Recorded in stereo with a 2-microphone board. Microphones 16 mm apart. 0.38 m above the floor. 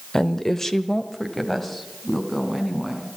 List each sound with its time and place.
0.1 s a woman speaking: 30° left (ahead or behind), 1.0 m; by 3.1 s 10° left (ahead or behind), 3.5 m